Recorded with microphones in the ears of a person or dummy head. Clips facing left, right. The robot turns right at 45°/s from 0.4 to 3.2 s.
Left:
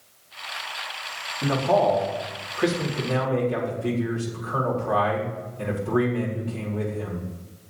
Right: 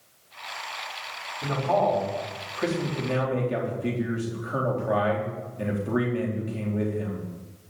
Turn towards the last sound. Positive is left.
turn(degrees=-160)